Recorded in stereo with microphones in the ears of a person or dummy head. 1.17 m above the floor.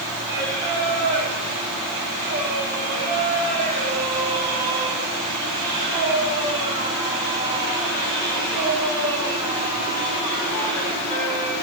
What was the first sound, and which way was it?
Singing, 30° right (ahead or behind).